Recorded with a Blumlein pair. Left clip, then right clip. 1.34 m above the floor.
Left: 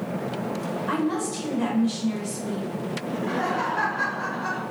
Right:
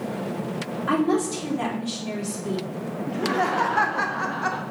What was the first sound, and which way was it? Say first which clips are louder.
A woman speaking: right 5 dB; 55° right.